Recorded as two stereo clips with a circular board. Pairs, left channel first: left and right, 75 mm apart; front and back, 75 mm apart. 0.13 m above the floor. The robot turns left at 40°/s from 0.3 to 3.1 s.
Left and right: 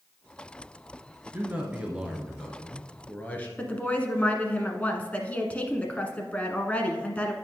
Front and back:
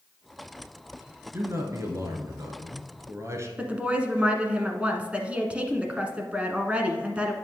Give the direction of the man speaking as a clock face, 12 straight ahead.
5 o'clock.